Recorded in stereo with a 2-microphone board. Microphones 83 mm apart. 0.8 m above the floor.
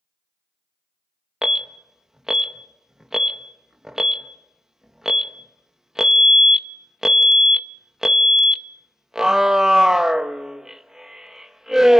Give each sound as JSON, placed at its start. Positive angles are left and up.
{"t": 1.4, "sound": "an alarm", "side_deg": -5, "distance_m": 0.5}